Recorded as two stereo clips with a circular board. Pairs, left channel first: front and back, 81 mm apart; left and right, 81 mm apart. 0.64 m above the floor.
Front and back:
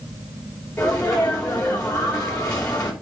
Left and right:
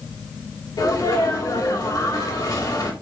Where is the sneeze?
75° left, 2.5 m.